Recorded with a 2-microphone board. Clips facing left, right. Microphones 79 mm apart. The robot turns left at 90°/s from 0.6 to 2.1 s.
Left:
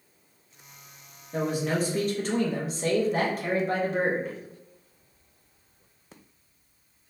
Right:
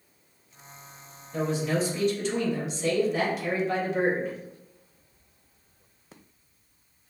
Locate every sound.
1.3 s a man speaking: 125° left, 1.1 m; by 4.4 s 60° left, 1.1 m